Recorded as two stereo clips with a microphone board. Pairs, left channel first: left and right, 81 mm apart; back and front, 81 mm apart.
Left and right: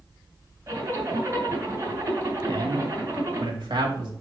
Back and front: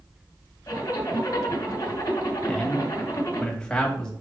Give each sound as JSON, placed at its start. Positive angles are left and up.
{"t": 0.7, "sound": "a zipper", "azimuth_deg": -140, "distance_m": 2.0}
{"t": 2.5, "sound": "a man speaking", "azimuth_deg": -100, "distance_m": 1.9}